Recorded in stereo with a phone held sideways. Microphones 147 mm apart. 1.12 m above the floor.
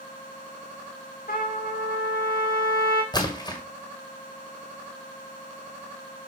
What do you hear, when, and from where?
1.3 s a trumpet: 85° left, 1.5 m
3.1 s a splash: 30° left (ahead or behind), 1.8 m